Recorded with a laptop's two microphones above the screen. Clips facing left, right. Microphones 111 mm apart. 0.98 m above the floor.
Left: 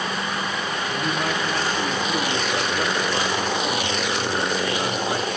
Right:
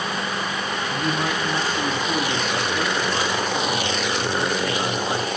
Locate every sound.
0.9 s a man speaking: 20° right (ahead or behind), 6.5 m